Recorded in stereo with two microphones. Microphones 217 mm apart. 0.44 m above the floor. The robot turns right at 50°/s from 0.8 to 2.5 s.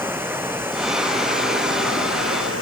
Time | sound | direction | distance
0.0 | running water | 170° right | ?